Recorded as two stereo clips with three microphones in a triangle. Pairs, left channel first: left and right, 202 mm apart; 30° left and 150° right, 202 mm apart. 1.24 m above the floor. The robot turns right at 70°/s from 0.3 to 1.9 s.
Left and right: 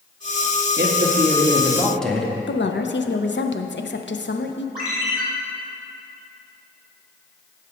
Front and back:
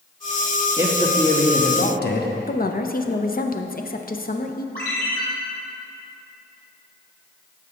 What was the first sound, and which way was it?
A man speaking, 75° right.